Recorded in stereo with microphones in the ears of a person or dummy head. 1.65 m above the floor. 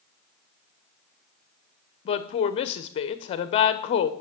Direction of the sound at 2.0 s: 35° left (ahead or behind).